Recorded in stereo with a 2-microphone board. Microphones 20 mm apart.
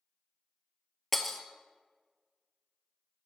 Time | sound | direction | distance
1.1 | breaking glass | 10° left (ahead or behind) | 0.5 m